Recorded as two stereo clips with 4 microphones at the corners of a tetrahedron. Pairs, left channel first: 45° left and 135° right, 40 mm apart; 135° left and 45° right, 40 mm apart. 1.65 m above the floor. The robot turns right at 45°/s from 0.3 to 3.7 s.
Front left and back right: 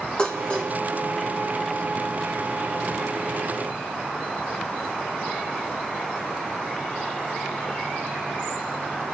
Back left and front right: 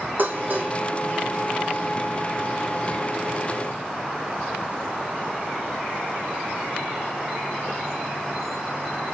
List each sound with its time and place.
0.2 s dishes clattering: 20° right, 1.6 m; by 0.7 s 5° right, 1.6 m